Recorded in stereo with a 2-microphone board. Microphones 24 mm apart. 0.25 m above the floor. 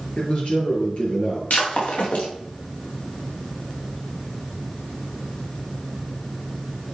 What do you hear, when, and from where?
0.2 s a man speaking: 50° left (ahead or behind), 4 m
1.5 s breaking glass: 85° left, 6 m